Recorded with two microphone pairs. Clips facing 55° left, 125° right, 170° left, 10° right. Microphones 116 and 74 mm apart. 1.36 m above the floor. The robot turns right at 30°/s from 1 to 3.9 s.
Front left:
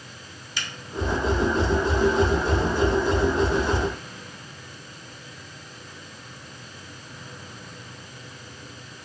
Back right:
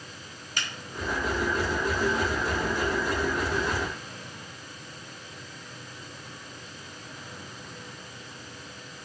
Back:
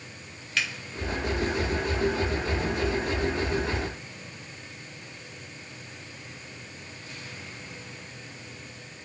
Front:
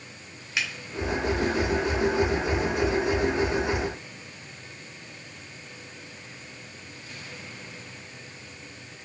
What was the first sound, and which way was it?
A finger snap, 85° right.